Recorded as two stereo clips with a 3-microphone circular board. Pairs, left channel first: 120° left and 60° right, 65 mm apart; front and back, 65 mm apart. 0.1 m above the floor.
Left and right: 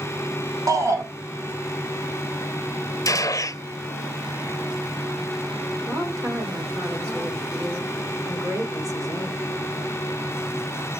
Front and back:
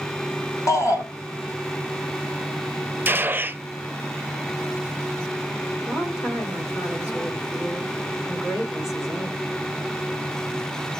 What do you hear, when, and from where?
0.7 s a shout: 35° right, 6 m
3.0 s a gunshot: 125° left, 0.5 m
5.9 s a woman speaking: 45° right, 7.5 m